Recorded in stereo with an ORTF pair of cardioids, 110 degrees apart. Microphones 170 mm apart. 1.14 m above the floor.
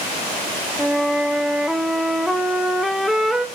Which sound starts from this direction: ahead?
A flute, at 0.8 s.